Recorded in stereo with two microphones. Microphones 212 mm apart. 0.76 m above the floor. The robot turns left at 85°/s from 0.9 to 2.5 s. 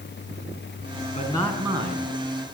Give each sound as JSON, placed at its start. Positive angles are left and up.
{"t": 1.1, "sound": "a man speaking", "azimuth_deg": 35, "distance_m": 7.5}